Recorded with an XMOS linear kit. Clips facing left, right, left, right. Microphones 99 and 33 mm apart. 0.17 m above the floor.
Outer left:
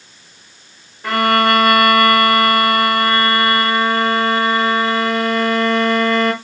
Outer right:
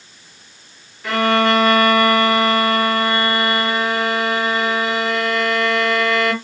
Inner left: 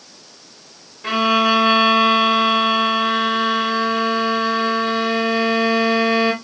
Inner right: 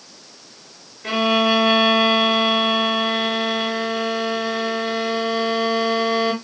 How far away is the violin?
About 1.5 m.